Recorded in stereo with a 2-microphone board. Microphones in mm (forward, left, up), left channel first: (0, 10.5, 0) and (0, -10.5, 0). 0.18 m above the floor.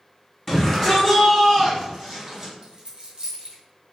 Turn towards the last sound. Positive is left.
turn(degrees=-35)  # may be behind; listen again after turning